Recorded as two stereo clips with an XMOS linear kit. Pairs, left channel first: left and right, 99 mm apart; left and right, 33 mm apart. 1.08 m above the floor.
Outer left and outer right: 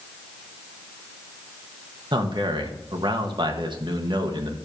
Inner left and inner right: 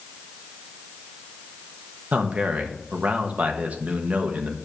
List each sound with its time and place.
2.1 s a man speaking: 50° right (ahead or behind), 1.3 m